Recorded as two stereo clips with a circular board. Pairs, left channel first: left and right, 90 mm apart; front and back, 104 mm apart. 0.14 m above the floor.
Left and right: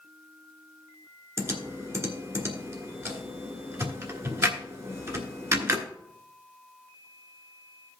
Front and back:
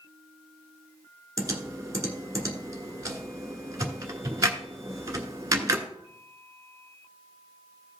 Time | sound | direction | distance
1.4 | typing on a keyboard | 140° right | 1.3 m